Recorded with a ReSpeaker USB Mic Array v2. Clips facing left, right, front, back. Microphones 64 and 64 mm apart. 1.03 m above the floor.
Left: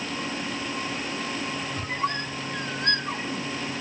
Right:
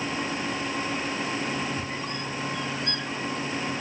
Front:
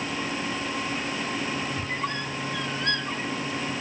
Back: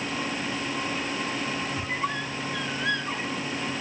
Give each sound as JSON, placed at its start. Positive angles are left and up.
{"t": 1.8, "sound": "a squeak", "azimuth_deg": 95, "distance_m": 1.1}